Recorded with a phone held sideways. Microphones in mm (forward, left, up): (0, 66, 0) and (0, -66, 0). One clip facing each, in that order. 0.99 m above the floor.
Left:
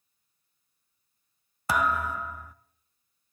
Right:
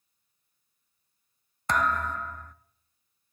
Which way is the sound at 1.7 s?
5° left (ahead or behind).